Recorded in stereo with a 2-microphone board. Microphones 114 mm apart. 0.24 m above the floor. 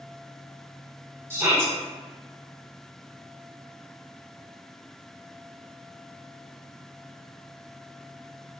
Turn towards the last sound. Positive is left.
turn(degrees=-25)  # may be behind; listen again after turning